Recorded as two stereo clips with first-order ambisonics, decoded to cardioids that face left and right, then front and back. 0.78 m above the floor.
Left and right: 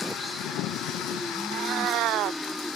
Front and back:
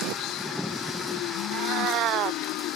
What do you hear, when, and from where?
1.5 s a cat meowing: 135° right